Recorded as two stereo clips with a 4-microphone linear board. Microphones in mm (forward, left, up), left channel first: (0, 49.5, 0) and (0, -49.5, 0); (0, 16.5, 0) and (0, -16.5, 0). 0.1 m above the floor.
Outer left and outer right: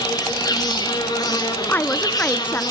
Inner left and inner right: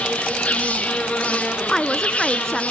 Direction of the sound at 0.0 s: 40° left (ahead or behind).